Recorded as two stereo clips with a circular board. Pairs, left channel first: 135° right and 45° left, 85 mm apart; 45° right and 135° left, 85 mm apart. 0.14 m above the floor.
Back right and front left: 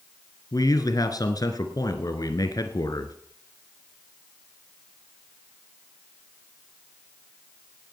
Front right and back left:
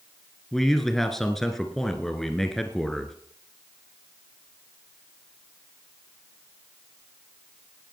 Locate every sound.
0.5 s a man speaking: 130° right, 1.5 m